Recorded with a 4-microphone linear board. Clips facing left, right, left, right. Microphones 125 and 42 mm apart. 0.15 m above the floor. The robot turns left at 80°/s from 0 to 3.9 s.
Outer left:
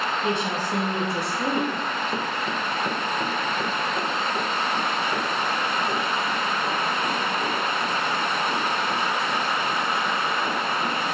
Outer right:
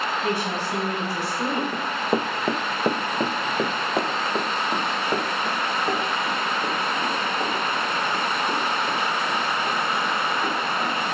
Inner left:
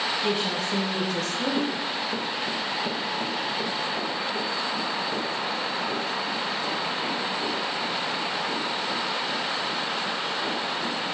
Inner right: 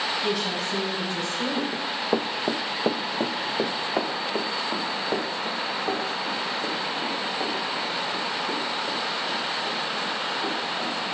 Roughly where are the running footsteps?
Right.